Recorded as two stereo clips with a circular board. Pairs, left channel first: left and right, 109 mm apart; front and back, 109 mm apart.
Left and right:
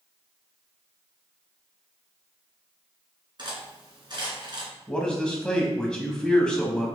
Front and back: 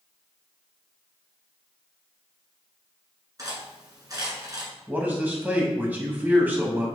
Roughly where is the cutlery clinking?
Behind right.